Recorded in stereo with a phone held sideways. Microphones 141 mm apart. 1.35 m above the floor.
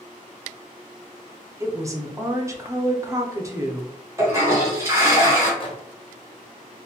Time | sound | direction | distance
1.6 | a woman speaking | 20° right (ahead or behind) | 0.6 m
4.2 | a toilet flushing | 20° right (ahead or behind) | 1.0 m
5.6 | a microwave | 35° left (ahead or behind) | 0.6 m